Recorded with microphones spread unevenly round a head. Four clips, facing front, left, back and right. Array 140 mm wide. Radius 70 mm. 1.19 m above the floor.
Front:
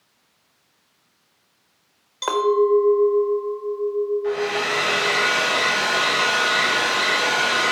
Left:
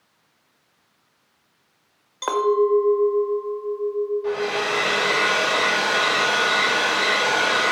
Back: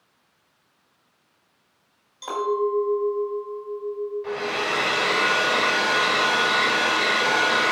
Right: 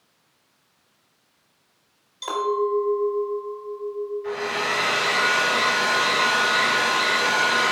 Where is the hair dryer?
125° left, 3.5 m.